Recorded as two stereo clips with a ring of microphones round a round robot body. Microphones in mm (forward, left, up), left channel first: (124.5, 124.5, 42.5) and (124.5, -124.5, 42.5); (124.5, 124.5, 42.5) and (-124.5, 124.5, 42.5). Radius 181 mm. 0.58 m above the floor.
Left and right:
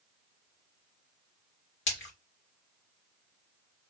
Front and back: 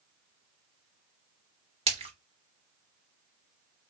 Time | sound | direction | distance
1.9 | a splash | 120° left | 1.7 m